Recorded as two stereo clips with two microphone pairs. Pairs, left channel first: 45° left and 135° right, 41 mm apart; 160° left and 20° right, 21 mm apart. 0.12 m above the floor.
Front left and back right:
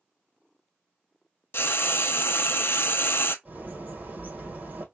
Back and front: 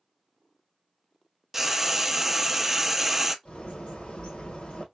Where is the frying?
60° left, 0.5 m.